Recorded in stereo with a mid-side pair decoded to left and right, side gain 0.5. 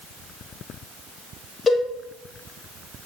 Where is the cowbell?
45° left, 3 m.